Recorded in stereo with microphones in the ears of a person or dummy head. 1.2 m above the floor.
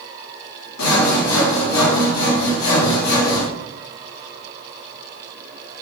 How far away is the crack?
No crack in this recording.